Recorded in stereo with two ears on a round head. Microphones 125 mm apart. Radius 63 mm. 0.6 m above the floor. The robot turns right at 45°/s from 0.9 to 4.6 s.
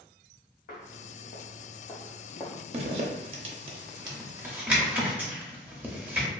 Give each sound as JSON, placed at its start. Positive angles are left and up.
{"t": 0.7, "sound": "footsteps", "side_deg": 65, "distance_m": 1.4}
{"t": 2.7, "sound": "a zipper", "side_deg": -45, "distance_m": 0.5}